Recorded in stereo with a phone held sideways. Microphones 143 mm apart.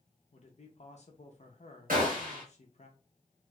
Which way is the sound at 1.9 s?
80° right.